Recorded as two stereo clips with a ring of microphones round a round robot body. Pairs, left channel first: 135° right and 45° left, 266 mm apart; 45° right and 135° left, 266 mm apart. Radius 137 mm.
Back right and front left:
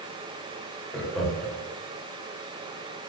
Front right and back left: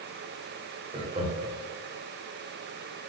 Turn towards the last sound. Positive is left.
turn(degrees=140)